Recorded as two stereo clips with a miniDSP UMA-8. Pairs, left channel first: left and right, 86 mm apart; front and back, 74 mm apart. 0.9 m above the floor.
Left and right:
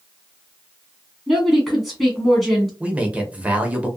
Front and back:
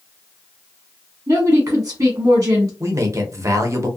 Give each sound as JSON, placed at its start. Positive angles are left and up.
{"t": 1.3, "sound": "a woman speaking", "azimuth_deg": 175, "distance_m": 1.1}
{"t": 2.8, "sound": "a man speaking", "azimuth_deg": -155, "distance_m": 0.7}